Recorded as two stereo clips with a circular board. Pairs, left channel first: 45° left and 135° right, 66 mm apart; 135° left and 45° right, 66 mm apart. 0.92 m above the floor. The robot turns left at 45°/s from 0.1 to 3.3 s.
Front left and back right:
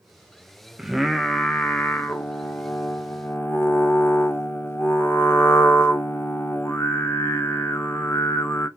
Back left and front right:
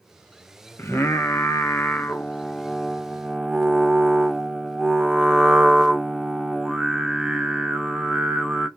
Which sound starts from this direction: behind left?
Singing, at 0.8 s.